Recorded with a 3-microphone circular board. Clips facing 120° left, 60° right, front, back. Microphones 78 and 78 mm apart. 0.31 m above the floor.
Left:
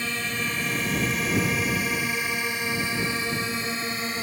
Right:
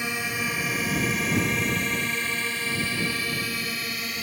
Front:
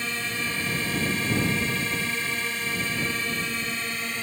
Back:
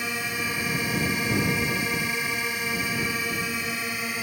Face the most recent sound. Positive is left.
turn(degrees=110)